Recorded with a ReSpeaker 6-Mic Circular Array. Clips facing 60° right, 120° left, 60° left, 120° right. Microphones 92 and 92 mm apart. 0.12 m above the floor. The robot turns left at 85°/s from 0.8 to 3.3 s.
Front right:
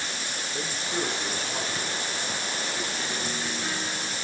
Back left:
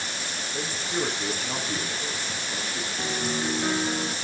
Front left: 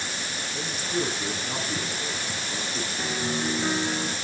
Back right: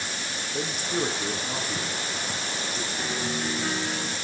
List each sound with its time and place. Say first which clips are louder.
0.5 s a man speaking: back left 2 dB, back right 1 dB; 145° right, 7 m; by 2.9 s 40° left, 7 m
3.0 s a piano: back left 3 dB, front left 2 dB; 140° left, 0.8 m; by 4.2 s 115° left, 0.8 m